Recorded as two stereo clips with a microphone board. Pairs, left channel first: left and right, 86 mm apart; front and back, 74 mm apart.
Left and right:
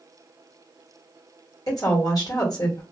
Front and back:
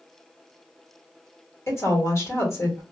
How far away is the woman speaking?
About 1.4 m.